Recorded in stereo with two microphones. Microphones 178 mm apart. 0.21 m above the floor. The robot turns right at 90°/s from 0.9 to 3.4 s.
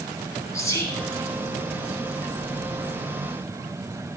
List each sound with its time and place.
0.5 s whispering: 15° left (ahead or behind), 2 m; by 1.0 s 5° left (ahead or behind), 2 m